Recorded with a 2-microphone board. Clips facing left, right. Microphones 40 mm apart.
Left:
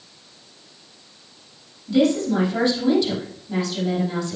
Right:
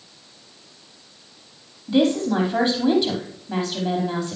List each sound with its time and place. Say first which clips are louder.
1.9 s a woman speaking: even; 30° right (ahead or behind), 4.5 m